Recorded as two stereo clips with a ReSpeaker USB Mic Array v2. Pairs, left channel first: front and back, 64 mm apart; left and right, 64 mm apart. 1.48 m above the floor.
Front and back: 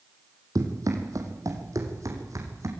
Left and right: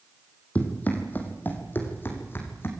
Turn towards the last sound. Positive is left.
turn(degrees=140)